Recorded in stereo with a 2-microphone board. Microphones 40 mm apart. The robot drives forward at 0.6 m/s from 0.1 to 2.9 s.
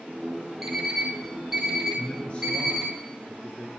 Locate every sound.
0.6 s an alarm clock: 5° right (ahead or behind), 2 m
2.0 s a man speaking: 35° left (ahead or behind), 1.4 m; by 3.7 s 30° left (ahead or behind), 1.6 m